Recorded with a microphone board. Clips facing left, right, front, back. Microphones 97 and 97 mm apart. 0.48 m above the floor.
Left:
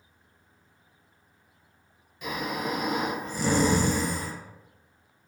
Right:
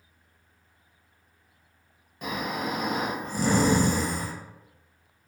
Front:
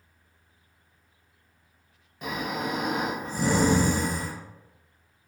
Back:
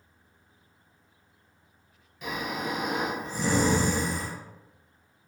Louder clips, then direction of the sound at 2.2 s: Even, front 2 dB; 45° right.